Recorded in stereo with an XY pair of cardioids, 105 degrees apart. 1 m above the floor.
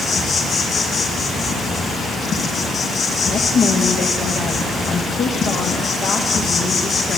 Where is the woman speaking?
60° left, 0.7 m.